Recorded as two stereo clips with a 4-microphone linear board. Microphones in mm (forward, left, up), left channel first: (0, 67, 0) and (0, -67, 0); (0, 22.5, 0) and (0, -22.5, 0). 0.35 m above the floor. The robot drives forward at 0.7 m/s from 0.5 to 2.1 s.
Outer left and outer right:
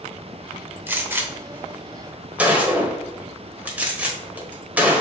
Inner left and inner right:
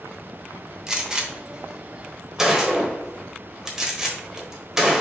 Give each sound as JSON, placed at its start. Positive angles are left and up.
{"t": 0.9, "sound": "a gunshot", "side_deg": -15, "distance_m": 0.8}